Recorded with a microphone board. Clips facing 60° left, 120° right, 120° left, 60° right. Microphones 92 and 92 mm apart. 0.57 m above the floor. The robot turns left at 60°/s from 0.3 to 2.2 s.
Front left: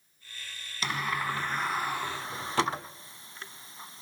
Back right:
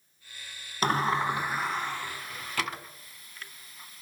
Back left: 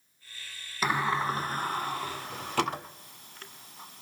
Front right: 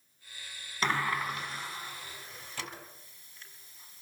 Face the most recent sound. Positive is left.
turn(degrees=115)